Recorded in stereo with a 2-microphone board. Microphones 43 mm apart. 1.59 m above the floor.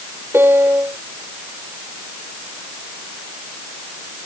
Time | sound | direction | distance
0.3 | a piano | 65° right (ahead or behind) | ?